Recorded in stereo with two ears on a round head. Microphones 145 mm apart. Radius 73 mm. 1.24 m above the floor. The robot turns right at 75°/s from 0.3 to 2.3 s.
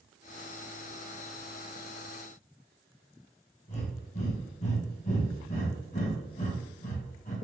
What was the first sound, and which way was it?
Breathing, 45° left (ahead or behind).